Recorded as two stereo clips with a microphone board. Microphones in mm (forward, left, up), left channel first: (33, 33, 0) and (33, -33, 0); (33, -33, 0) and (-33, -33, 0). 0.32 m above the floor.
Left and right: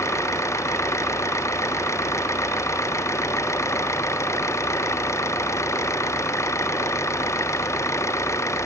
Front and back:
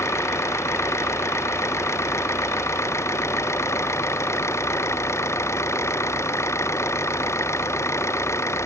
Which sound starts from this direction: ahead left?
An engine running, at 0.0 s.